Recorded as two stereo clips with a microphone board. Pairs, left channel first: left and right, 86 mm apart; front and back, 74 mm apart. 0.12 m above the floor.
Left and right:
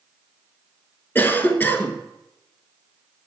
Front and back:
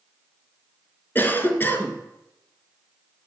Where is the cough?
40° left, 1.2 m.